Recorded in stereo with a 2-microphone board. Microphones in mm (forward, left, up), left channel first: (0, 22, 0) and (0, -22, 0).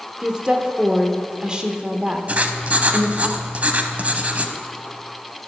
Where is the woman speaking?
20° right (ahead or behind), 0.8 m.